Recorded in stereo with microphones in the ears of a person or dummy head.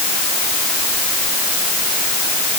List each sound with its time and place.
Only background noise.